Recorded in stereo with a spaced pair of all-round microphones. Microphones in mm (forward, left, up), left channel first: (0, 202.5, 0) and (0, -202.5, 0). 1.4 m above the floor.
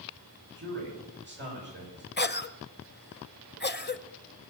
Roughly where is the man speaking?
Right.